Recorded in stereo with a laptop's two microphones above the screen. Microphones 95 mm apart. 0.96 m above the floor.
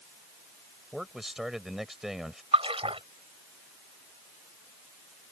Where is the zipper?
No zipper in this recording.